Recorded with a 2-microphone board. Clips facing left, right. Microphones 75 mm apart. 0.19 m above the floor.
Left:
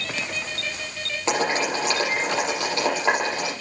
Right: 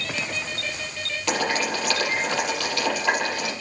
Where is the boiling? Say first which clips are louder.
Left 2 dB; 25° left (ahead or behind), 6.5 m.